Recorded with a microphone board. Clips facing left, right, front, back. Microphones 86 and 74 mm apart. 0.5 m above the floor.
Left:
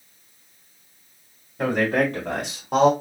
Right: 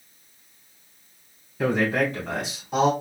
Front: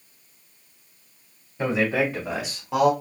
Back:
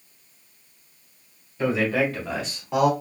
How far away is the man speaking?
About 2.5 m.